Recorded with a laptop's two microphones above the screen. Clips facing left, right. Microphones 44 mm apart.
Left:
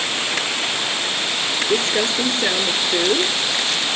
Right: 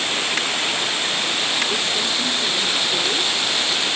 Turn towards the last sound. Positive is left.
turn(degrees=50)  # may be behind; listen again after turning